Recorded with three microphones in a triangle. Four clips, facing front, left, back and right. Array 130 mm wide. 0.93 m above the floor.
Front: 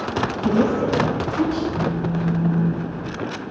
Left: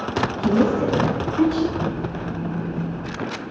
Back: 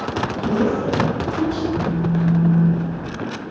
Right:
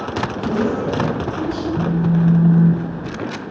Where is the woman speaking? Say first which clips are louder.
Left 2 dB, front 1 dB; 80° left, 7 m; by 1.6 s 70° left, 7 m.